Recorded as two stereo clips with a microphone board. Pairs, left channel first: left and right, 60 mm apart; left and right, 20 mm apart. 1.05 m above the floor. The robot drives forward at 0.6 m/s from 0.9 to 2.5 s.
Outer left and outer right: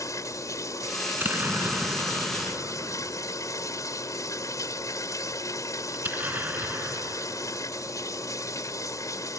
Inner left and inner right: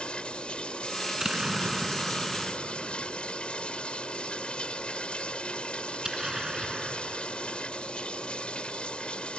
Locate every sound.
0.0 s running water: 80° left; by 9.4 s 85° left
1.1 s an explosion: 40° right (ahead or behind); by 9.4 s 35° right (ahead or behind)